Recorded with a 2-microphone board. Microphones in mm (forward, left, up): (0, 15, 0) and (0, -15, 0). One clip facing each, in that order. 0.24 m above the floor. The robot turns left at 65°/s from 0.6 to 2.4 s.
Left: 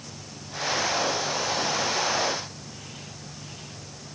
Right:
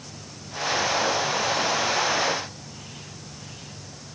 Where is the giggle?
I don't hear a giggle.